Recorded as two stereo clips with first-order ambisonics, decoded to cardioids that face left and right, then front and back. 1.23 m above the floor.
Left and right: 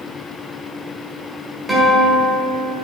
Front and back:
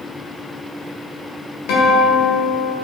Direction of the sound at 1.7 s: 5° right.